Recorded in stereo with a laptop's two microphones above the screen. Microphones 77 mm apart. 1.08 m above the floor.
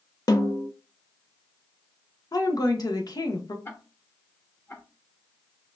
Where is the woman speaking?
55° left (ahead or behind), 1.0 m.